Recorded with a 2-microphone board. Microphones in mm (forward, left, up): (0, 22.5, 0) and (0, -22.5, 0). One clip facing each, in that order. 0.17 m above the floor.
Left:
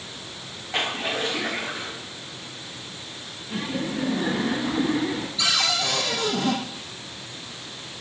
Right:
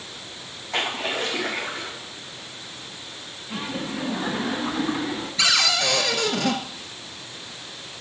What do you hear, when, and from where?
0.7 s a splash: 75° right (ahead or behind), 5.5 m
3.5 s laughter: 40° right (ahead or behind), 1.3 m
5.4 s a cupboard door: 70° right (ahead or behind), 1.1 m